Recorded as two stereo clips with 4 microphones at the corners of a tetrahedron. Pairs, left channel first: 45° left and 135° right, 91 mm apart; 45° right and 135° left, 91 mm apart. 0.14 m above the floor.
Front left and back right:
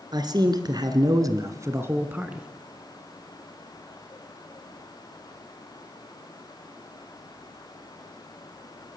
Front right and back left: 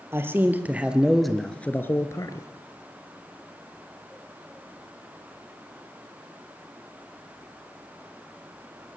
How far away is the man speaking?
About 2.5 m.